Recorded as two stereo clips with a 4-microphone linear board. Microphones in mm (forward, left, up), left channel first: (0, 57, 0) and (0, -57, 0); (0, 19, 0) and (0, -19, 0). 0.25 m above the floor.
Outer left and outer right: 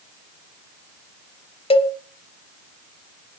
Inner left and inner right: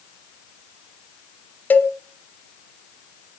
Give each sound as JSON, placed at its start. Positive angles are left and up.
{"t": 1.7, "sound": "a cowbell", "side_deg": 55, "distance_m": 1.2}